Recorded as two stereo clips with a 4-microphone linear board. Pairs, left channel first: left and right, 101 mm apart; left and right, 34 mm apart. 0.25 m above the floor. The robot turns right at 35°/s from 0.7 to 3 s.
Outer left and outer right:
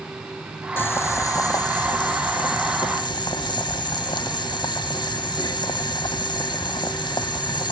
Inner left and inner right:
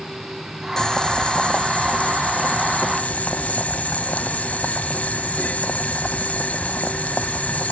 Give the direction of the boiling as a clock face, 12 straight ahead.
11 o'clock.